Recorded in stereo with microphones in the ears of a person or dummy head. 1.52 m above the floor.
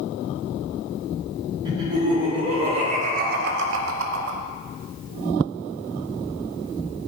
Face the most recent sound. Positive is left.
turn(degrees=-65)  # may be behind; listen again after turning